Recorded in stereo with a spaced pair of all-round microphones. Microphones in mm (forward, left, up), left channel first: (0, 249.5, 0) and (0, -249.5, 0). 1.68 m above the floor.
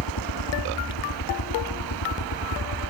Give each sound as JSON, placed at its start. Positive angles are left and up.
{"t": 0.0, "sound": "a helicopter", "side_deg": 55}